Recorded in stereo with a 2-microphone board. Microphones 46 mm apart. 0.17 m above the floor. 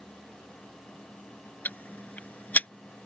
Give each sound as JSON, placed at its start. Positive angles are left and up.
{"t": 1.6, "sound": "ticking", "side_deg": 35}